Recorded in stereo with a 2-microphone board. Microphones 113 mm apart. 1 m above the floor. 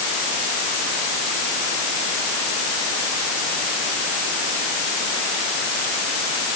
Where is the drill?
No drill in this recording.